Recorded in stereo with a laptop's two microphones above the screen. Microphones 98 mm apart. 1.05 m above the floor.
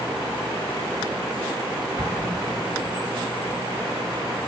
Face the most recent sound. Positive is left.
turn(degrees=-30)  # may be behind; listen again after turning